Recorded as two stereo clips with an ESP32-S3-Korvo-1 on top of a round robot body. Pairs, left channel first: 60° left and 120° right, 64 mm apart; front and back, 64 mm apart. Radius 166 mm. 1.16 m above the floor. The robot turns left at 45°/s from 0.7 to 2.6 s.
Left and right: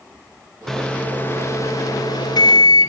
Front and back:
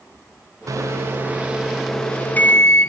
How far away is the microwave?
About 0.8 m.